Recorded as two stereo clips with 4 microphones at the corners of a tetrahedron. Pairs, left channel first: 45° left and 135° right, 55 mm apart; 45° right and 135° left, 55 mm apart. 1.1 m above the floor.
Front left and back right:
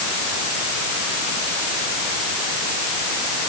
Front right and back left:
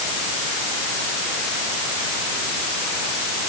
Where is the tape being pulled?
I don't hear tape being pulled.